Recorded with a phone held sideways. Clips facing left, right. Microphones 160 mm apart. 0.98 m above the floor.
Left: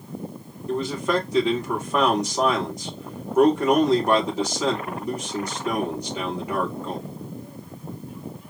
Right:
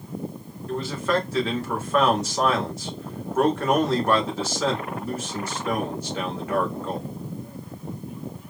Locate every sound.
0.7 s a man speaking: 15° left (ahead or behind), 2 m